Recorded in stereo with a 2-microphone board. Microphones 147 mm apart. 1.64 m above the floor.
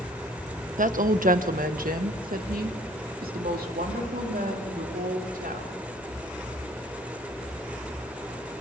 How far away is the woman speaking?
About 0.9 m.